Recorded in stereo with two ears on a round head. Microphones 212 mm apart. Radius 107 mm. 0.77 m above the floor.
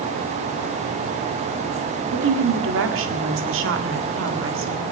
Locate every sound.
2.1 s a woman speaking: 60° right (ahead or behind), 1.8 m